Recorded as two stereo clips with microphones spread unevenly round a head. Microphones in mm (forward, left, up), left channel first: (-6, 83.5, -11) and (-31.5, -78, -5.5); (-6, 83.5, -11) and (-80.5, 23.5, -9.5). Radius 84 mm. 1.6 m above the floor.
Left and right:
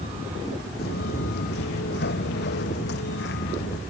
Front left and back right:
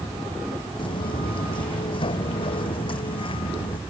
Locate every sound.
0.8 s footsteps: 60° left